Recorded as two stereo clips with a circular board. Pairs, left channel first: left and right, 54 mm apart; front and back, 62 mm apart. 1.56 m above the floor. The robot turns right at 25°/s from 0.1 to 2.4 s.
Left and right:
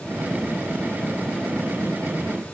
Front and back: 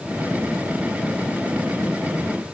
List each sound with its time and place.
Only background noise.